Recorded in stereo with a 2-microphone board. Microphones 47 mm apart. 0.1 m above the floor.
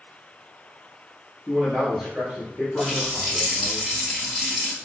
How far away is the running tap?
About 1.5 m.